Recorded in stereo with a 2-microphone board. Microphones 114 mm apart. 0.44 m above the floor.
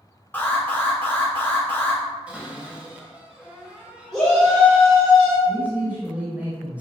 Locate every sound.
0.3 s an alarm: 15° left (ahead or behind), 1.6 m
2.3 s a cupboard door: 10° right (ahead or behind), 1.3 m
4.1 s a shout: 5° left (ahead or behind), 1.9 m
5.5 s a man speaking: 15° right (ahead or behind), 1.9 m